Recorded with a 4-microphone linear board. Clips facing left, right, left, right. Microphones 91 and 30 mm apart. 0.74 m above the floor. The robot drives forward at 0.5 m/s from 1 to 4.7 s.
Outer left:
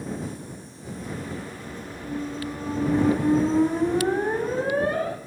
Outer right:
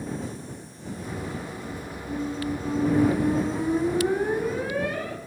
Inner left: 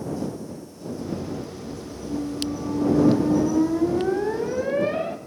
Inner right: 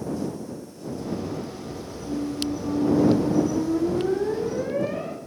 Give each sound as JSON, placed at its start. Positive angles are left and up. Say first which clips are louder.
{"t": 2.0, "sound": "a squeak", "louder": "outer right 2 dB, even", "side_deg": 25, "distance_m": 4.0}